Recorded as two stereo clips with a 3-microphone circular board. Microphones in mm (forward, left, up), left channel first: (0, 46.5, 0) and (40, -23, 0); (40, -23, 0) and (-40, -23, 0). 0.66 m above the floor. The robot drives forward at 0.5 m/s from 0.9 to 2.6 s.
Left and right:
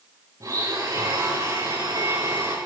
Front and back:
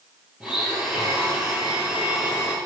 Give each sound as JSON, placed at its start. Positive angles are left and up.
{"t": 0.4, "sound": "a blender", "azimuth_deg": -95, "distance_m": 7.0}